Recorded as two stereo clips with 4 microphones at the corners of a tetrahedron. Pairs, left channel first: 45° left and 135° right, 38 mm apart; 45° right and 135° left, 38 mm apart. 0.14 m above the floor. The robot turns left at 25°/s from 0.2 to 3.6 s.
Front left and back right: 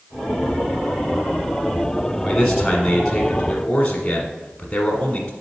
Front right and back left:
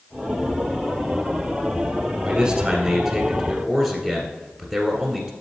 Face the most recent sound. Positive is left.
turn(degrees=95)